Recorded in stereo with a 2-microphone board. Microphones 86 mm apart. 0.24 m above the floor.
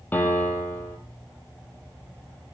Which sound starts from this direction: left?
A piano, at 0.1 s.